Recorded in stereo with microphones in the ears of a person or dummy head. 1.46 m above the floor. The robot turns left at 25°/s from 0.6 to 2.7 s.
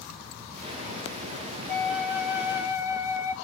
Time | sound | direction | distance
1.7 | a flute | centre (ahead or behind) | 3 m